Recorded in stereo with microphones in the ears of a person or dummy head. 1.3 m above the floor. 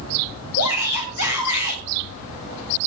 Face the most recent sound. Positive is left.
turn(degrees=75)  # may be behind; listen again after turning